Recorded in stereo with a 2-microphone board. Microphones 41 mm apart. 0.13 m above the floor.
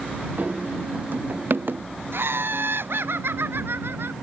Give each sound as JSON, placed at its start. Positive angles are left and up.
{"t": 0.4, "sound": "running footsteps", "side_deg": -45}
{"t": 2.1, "sound": "laughter", "side_deg": -70}